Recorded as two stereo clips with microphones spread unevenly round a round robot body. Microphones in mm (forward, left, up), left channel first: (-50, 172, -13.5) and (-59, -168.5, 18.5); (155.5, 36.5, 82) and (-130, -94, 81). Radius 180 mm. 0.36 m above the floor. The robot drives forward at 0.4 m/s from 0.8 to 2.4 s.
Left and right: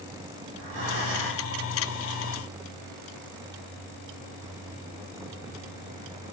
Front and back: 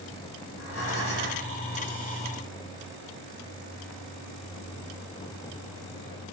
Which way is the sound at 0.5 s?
30° right.